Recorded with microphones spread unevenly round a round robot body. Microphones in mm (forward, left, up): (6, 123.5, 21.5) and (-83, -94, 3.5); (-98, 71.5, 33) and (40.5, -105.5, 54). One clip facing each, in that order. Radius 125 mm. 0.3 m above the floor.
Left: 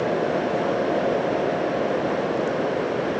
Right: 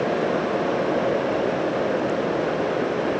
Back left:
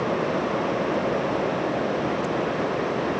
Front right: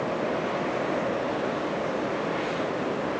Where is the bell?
No bell in this recording.